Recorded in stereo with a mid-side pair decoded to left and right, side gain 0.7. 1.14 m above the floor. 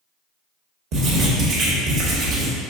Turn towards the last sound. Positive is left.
turn(degrees=-55)